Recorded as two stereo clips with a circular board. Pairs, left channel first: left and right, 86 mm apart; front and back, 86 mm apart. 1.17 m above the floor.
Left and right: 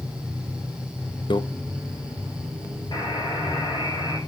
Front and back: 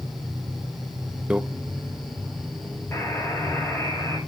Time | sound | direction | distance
1.3 | a microwave | 105° left | 0.8 m
2.9 | a buzzer | 60° left | 5 m